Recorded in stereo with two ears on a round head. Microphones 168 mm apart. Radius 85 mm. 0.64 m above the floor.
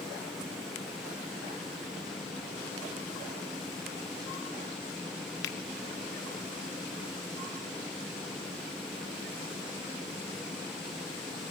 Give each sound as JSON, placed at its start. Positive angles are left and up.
{"t": 5.4, "sound": "a finger snap", "side_deg": 60, "distance_m": 0.7}